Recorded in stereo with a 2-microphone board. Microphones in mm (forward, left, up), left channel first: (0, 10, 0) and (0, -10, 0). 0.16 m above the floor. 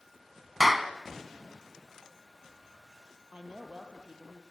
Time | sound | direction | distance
0.6 | a clap | 5° right (ahead or behind) | 1.2 m
3.3 | a woman speaking | 75° right (ahead or behind) | 5 m